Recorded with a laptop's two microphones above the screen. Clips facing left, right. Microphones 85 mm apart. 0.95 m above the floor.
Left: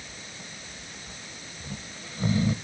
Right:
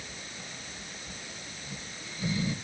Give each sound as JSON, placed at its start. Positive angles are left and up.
{"t": 1.6, "sound": "snoring", "side_deg": 55, "distance_m": 1.1}